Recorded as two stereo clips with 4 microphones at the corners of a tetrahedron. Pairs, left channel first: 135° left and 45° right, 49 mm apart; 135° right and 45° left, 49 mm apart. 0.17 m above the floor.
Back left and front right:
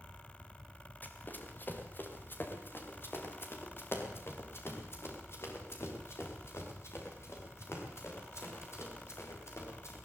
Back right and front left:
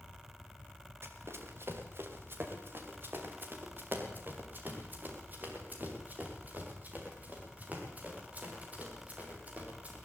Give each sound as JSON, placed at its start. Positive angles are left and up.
{"t": 1.0, "sound": "running footsteps", "azimuth_deg": 80, "distance_m": 4.0}